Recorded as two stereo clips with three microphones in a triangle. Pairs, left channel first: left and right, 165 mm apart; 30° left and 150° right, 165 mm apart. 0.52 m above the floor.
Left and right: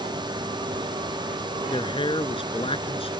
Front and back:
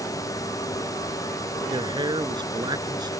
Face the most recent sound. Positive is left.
turn(degrees=145)